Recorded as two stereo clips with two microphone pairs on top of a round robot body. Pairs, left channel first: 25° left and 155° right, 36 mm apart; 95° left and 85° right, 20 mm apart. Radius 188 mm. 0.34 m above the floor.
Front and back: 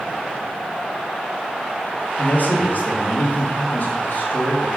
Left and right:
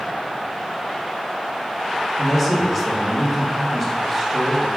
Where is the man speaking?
Straight ahead, 3 m.